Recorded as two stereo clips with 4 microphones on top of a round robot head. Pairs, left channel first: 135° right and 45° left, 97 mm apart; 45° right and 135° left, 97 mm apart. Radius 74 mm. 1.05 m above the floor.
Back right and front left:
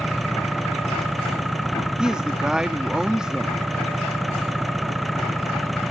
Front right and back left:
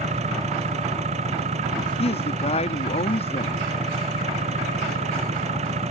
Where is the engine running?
135° left.